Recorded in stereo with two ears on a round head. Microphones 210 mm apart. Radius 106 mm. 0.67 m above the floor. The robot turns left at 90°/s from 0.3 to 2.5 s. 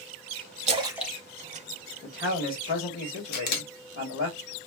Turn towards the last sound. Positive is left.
turn(degrees=40)  # may be behind; listen again after turning